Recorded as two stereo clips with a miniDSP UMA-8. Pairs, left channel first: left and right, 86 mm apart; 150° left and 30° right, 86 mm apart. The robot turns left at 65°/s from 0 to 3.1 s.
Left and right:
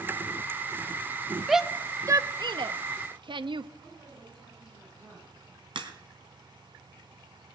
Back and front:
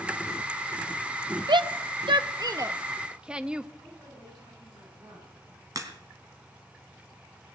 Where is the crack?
75° right, 2.5 m.